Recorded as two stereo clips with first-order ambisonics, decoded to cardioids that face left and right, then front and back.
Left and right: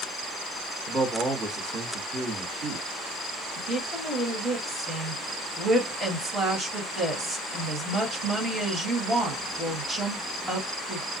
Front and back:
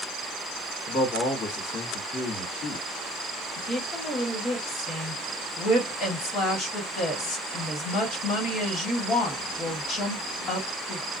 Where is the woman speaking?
25° right, 1.3 m.